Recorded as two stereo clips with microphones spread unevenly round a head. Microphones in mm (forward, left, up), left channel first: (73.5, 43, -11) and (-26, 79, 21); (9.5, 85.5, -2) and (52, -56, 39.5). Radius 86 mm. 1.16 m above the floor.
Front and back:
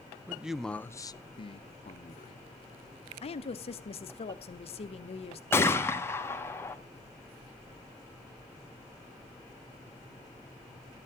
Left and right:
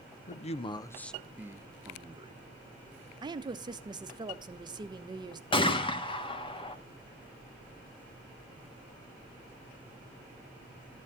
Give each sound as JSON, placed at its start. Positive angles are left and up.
{"t": 0.3, "sound": "a man speaking", "azimuth_deg": 80, "distance_m": 0.7}
{"t": 3.2, "sound": "a woman speaking", "azimuth_deg": -5, "distance_m": 0.9}
{"t": 5.5, "sound": "a gunshot", "azimuth_deg": 50, "distance_m": 1.5}